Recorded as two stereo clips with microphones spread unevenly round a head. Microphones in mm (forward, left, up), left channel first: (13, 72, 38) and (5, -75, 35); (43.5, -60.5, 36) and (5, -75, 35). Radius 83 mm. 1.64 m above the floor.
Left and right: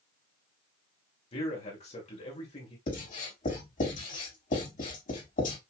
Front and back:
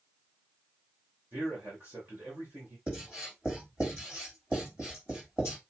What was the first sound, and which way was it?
A man speaking, 140° left.